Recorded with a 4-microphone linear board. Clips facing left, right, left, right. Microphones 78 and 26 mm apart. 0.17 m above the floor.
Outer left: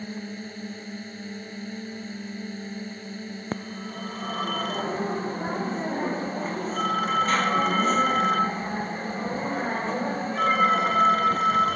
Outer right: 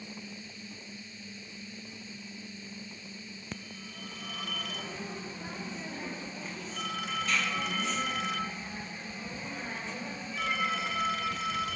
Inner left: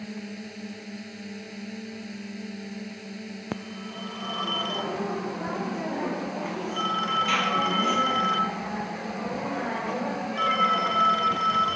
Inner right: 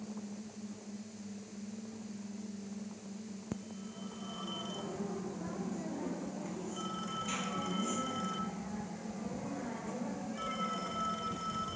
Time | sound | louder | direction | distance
0.0 | a drone | outer left 10 dB, inner left 7 dB | 55° left (ahead or behind) | ?
3.5 | a phone ringing | outer left 11 dB, inner left 9 dB | 45° left (ahead or behind) | ?